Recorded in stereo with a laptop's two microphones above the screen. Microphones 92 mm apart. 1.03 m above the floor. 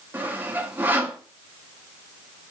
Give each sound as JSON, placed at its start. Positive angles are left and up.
{"t": 0.1, "sound": "sawing", "side_deg": -20, "distance_m": 0.7}